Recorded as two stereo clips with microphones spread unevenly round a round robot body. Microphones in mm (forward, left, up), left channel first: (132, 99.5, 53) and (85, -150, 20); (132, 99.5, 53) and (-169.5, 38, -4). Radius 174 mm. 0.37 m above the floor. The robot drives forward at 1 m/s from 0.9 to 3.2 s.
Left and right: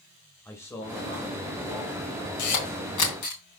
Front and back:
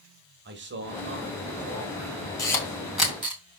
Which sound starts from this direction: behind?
A man speaking, at 0.5 s.